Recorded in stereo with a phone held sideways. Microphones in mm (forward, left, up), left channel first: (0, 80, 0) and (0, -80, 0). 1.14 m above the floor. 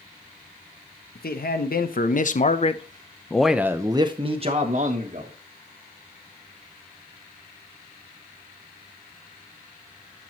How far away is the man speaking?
About 1.3 m.